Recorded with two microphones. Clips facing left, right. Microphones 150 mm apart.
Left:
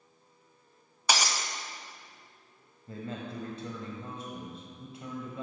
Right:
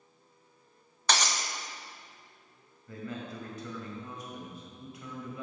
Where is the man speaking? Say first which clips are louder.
Left 1 dB; 30° left (ahead or behind), 1.4 m.